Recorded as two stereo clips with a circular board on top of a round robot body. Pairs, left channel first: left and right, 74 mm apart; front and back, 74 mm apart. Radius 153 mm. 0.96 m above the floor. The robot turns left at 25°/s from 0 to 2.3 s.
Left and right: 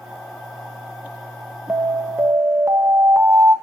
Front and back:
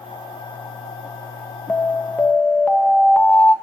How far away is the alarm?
About 1.6 m.